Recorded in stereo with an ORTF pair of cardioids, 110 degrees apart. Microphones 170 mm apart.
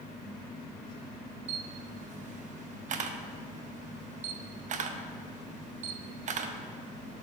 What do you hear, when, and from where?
1.5 s a camera shutter: 45° right, 0.6 m